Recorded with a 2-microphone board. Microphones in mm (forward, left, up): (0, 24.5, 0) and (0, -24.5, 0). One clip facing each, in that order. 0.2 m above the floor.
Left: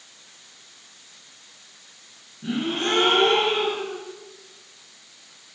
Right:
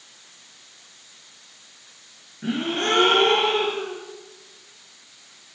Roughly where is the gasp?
Right.